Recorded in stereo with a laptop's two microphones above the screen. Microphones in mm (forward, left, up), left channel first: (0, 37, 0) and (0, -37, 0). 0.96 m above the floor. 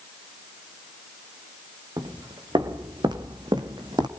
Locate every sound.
2.0 s footsteps: 70° right (ahead or behind), 4.5 m